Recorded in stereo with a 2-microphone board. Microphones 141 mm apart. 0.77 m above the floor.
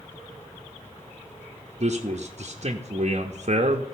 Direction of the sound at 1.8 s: 50° right (ahead or behind).